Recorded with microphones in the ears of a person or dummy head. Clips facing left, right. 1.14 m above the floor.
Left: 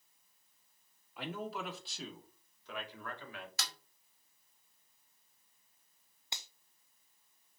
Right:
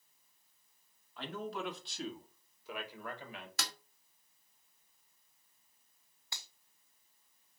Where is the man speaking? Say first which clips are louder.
Even; 15° left (ahead or behind), 2.5 m; by 3.5 s 20° right (ahead or behind), 2.5 m.